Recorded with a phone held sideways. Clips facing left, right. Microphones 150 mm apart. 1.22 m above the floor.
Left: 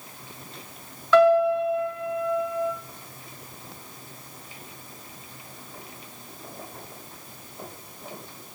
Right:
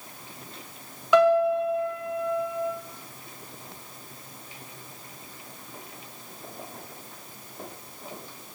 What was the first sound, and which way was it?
A piano, 15° right (ahead or behind).